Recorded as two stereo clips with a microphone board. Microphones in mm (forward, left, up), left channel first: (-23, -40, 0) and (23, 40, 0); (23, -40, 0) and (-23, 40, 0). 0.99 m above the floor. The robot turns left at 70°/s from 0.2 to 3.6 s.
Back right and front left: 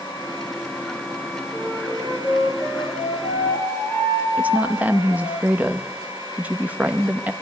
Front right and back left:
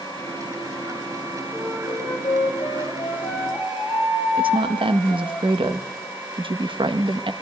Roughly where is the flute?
Ahead.